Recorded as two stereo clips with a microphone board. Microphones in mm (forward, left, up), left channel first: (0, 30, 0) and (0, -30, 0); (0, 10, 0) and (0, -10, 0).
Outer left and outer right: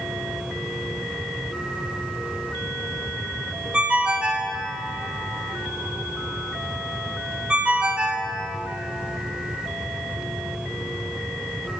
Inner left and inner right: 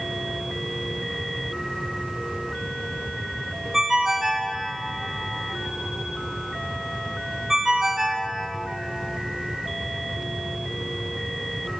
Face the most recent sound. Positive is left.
turn(degrees=-15)  # may be behind; listen again after turning